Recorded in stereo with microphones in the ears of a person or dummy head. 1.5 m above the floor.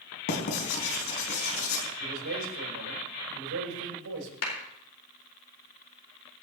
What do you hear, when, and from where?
0.3 s writing: 60° left (ahead or behind), 4 m
2.0 s a man speaking: 80° right, 6 m
4.4 s a clap: 80° left, 4.5 m